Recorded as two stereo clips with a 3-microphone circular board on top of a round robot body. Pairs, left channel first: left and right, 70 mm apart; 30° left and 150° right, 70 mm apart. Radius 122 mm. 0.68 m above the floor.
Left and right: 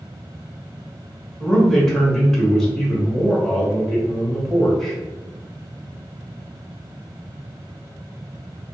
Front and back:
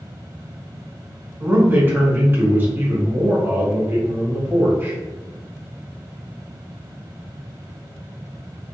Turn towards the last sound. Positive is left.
turn(degrees=170)